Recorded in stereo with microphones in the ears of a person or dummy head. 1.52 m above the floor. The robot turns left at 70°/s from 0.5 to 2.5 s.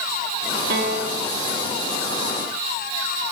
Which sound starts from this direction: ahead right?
A piano, at 0.7 s.